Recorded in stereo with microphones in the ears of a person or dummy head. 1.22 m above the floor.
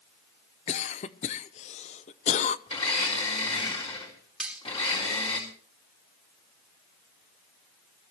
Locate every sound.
0.7 s a cough: 35° left (ahead or behind), 0.7 m
2.7 s a blender: 35° left (ahead or behind), 3.5 m
4.4 s cutlery clinking: 5° right (ahead or behind), 2.0 m